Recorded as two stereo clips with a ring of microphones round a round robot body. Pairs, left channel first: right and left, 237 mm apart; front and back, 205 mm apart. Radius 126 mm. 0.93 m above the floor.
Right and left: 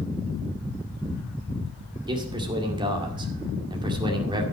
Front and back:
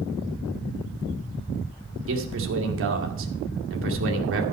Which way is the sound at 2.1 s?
160° left.